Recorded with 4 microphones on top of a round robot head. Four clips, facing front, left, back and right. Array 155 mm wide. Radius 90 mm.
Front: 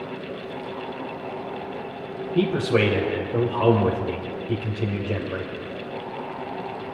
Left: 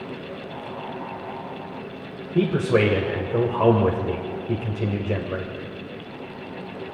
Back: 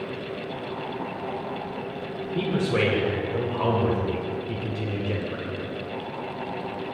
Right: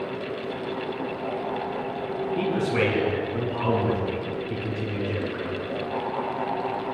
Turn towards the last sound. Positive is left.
turn(degrees=70)